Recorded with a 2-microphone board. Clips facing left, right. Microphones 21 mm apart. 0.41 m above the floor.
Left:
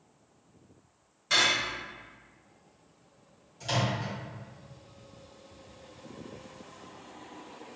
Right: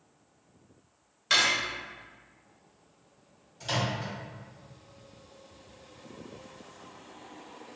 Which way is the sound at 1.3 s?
35° right (ahead or behind).